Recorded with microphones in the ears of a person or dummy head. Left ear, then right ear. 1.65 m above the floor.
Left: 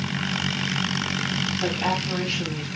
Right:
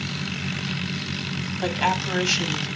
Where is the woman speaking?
40° right (ahead or behind), 5 m; by 2.7 s 60° right (ahead or behind), 4.5 m.